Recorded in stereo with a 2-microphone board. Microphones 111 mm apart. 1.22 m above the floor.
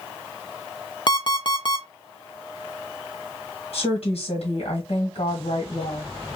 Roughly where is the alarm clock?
Left.